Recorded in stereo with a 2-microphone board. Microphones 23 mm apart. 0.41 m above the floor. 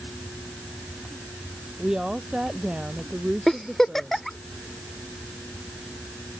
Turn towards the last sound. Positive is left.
turn(degrees=15)  # may be behind; listen again after turning